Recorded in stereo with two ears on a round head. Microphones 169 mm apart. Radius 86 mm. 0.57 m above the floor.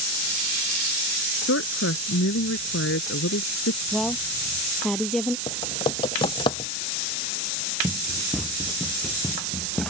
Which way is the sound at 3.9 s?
Centre (ahead or behind).